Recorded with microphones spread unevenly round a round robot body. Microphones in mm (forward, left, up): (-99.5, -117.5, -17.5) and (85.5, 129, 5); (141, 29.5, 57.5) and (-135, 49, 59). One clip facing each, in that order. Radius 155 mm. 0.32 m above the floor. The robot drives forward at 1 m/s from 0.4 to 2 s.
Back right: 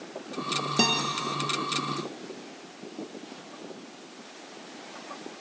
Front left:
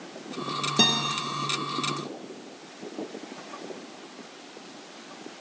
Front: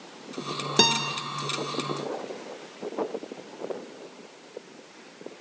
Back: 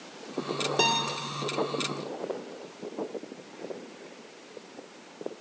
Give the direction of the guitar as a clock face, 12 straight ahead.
1 o'clock.